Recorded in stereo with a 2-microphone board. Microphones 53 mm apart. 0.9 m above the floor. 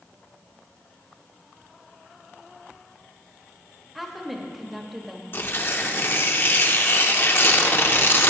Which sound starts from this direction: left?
Tearing paper, at 5.3 s.